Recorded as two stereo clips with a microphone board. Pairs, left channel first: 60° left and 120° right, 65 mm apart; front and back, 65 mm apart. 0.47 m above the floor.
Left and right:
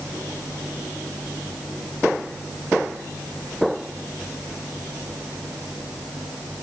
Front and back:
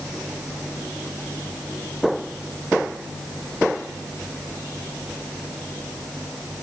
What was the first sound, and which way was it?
Only background noise.